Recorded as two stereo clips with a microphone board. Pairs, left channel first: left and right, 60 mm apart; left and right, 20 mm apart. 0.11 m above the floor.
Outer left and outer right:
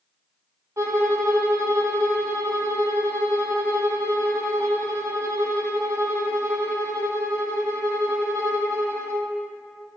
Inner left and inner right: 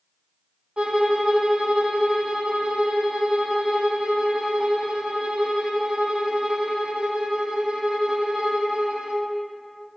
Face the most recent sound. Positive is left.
turn(degrees=-55)  # may be behind; listen again after turning